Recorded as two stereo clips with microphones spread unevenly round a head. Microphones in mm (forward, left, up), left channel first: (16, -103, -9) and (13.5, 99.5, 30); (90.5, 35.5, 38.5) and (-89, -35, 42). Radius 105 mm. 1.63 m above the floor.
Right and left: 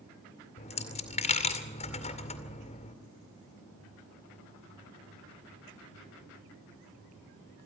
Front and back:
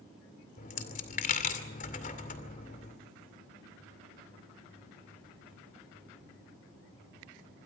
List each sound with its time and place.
0.6 s a dropped coin: 30° right, 2 m